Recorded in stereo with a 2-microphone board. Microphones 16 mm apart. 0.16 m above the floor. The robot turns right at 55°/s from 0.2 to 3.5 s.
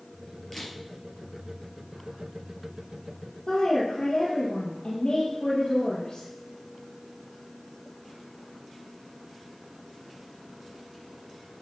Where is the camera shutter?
20° left (ahead or behind), 3.5 m; by 0.7 s 30° left (ahead or behind), 3.5 m.